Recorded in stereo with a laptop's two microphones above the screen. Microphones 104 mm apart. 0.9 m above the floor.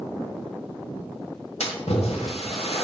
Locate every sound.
1.6 s a splash: 80° left, 1.8 m